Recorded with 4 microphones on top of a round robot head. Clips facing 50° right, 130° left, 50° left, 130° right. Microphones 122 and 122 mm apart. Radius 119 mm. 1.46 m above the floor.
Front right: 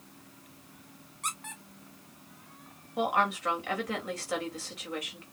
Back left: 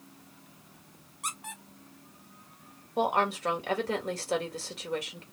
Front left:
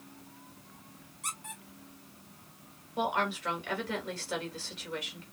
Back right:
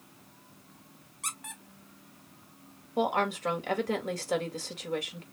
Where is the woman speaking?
170° right, 2.5 m.